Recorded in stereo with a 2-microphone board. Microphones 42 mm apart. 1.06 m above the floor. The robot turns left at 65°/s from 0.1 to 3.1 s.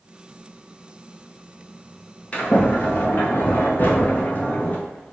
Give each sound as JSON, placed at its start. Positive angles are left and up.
{"t": 2.3, "sound": "a sliding door", "azimuth_deg": 130, "distance_m": 0.8}